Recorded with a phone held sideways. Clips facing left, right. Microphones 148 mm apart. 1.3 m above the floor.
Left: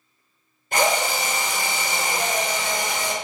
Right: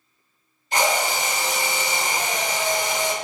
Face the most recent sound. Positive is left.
turn(degrees=55)  # may be behind; listen again after turning